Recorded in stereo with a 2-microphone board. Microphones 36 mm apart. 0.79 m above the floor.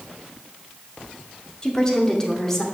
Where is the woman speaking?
20° left (ahead or behind), 2 m; by 2.6 s 10° left (ahead or behind), 3 m.